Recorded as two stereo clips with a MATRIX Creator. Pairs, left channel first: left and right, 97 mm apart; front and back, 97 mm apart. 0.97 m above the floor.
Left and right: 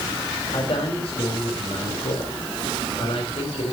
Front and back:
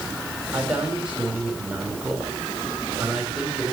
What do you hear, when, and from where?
0.5 s a man speaking: 100° left, 3 m